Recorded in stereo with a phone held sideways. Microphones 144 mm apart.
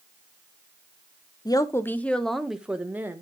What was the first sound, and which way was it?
A woman speaking, 30° left (ahead or behind).